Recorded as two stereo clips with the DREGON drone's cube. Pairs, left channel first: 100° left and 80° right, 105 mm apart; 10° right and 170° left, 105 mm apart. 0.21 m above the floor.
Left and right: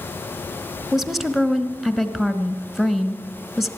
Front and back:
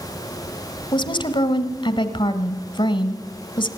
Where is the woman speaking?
10° left, 1.6 m.